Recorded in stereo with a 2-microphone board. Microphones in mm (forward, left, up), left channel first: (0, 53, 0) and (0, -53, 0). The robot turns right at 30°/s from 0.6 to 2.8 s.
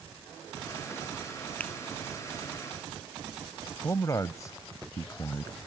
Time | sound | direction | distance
1.6 | a finger snap | 15° left (ahead or behind) | ?
3.8 | a man speaking | 30° left (ahead or behind) | ?